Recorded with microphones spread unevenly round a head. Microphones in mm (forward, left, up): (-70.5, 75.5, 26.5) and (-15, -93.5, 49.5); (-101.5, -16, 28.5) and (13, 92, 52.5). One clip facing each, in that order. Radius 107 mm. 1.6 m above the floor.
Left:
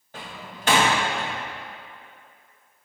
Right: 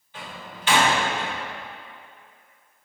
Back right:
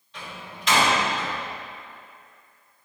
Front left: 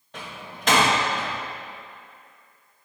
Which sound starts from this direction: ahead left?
A door slam, at 0.1 s.